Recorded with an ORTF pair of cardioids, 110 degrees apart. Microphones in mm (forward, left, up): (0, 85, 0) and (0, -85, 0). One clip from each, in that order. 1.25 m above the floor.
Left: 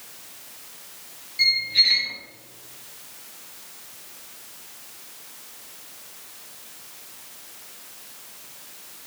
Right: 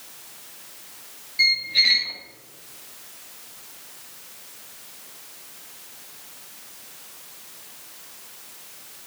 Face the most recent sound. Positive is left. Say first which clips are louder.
# even
turn(degrees=-15)